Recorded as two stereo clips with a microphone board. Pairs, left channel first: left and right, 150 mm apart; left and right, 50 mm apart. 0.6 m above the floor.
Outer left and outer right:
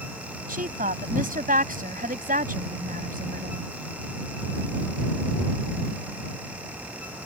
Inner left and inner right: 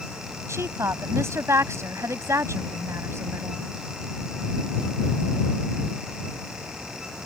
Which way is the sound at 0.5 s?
70° right (ahead or behind).